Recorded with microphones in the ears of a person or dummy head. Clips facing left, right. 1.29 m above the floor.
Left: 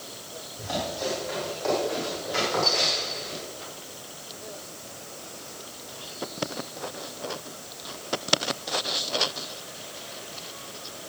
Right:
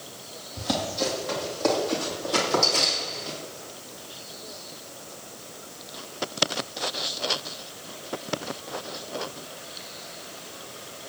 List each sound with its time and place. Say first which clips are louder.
0.6 s running footsteps: right 3 dB; 60° right (ahead or behind), 3.5 m